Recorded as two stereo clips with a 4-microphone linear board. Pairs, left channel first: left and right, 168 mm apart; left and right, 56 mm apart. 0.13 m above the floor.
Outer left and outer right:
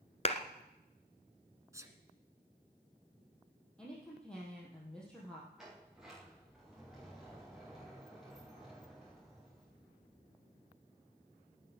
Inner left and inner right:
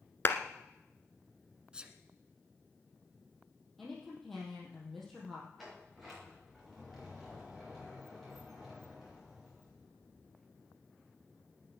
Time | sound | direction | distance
0.2 | a clap | 40° left (ahead or behind) | 1.3 m
1.7 | a sneeze | 20° right (ahead or behind) | 1.6 m
3.8 | a woman speaking | 5° left (ahead or behind) | 4 m
5.6 | a sliding door | centre (ahead or behind) | 6.5 m